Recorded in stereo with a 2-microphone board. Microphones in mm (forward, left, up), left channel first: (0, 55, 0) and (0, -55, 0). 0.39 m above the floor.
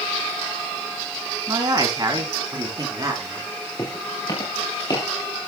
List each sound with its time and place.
1.5 s a man speaking: 40° right (ahead or behind), 3.5 m; by 3.5 s 35° right (ahead or behind), 4.5 m
3.8 s footsteps: 35° left (ahead or behind), 7 m; by 5.1 s 40° left (ahead or behind), 7.5 m